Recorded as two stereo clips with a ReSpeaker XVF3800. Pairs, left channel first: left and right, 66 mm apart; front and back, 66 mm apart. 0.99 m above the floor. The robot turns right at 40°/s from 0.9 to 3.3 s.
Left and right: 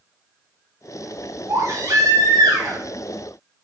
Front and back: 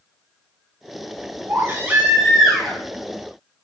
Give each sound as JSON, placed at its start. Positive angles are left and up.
{"t": 1.5, "sound": "a baby crying", "azimuth_deg": -130, "distance_m": 3.5}